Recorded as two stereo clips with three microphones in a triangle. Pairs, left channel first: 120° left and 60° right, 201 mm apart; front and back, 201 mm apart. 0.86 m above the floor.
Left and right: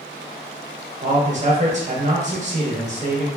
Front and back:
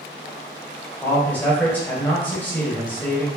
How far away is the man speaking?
About 0.8 m.